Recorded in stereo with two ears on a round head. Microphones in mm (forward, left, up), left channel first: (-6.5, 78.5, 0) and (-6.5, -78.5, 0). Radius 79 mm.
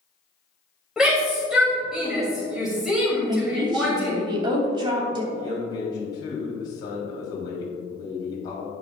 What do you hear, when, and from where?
1.0 s a shout: 5° right (ahead or behind), 3 m
3.3 s a woman speaking: 25° right (ahead or behind), 3 m
5.3 s a man speaking: 25° left (ahead or behind), 4 m